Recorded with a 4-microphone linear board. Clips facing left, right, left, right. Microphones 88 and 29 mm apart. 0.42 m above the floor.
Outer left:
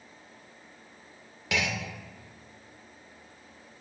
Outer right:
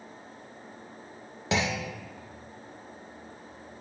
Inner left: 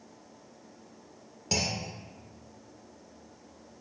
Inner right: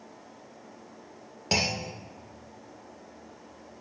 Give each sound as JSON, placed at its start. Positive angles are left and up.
{"t": 1.5, "sound": "a clunk", "side_deg": -30, "distance_m": 0.6}